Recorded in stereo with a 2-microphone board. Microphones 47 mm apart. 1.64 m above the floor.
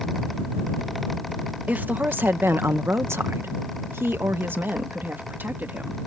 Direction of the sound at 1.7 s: 40° right (ahead or behind).